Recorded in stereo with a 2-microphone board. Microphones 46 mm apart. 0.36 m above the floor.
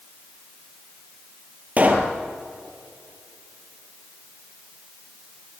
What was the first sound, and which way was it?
A pop, 30° right (ahead or behind).